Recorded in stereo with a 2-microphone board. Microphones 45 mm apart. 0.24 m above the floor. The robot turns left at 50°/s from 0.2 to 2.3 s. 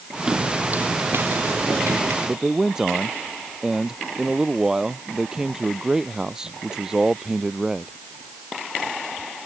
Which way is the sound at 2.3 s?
15° right (ahead or behind).